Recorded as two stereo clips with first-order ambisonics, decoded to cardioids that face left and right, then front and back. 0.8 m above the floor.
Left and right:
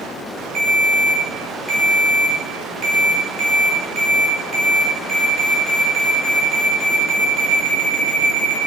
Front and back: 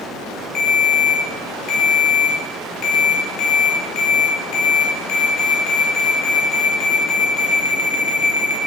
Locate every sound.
0.6 s a ringtone: 25° right, 0.9 m